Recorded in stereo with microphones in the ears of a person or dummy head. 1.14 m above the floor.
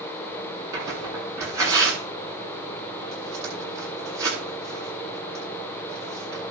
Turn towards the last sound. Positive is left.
turn(degrees=-15)  # may be behind; listen again after turning